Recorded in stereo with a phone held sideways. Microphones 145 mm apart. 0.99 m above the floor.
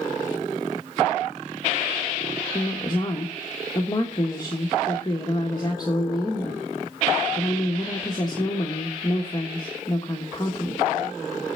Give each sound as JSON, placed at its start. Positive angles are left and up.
{"t": 2.5, "sound": "a woman speaking", "side_deg": 25, "distance_m": 1.5}